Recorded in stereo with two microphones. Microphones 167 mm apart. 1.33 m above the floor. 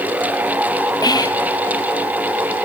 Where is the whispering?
25° left (ahead or behind), 0.7 m.